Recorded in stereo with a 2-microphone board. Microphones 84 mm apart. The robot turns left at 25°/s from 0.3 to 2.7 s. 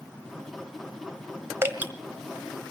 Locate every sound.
1.6 s dripping: 30° right (ahead or behind), 1.3 m; by 1.9 s 20° right (ahead or behind), 1.3 m